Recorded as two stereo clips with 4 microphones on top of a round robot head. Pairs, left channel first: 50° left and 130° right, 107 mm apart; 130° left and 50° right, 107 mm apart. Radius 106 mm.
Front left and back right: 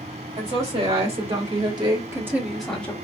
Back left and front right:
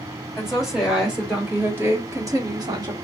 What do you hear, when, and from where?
0.3 s a woman speaking: 135° right, 2.5 m; by 2.9 s 20° right, 1.3 m